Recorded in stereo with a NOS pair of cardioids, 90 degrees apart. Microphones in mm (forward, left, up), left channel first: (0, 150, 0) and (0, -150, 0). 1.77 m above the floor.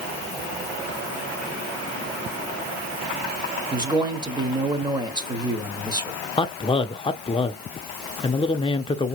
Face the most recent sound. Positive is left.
turn(degrees=15)